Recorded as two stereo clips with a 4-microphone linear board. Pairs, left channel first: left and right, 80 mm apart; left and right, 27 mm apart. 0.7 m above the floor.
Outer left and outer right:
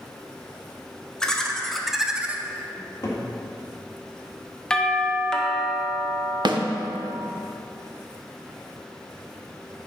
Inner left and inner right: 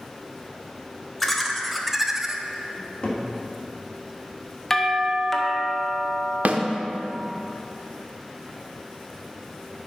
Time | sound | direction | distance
1.2 | laughter | 10° left (ahead or behind) | 1.4 m
2.8 | a cupboard door | 40° left (ahead or behind) | 2.0 m
4.7 | a doorbell | 10° left (ahead or behind) | 0.9 m
6.5 | a snare drum | 65° right (ahead or behind) | 0.8 m